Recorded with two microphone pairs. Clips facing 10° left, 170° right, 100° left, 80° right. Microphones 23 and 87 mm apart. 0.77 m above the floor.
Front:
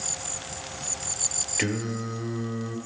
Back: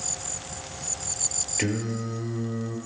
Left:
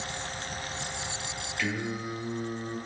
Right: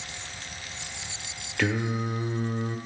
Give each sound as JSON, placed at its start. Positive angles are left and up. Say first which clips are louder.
{"t": 1.6, "sound": "singing", "louder": "even, right 5 dB", "azimuth_deg": -65, "distance_m": 1.0}